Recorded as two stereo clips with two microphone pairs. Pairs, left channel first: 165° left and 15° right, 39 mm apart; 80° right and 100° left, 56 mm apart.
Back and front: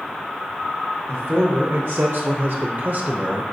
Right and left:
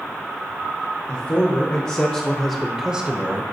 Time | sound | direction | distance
1.1 | a man speaking | 50° right | 1.3 m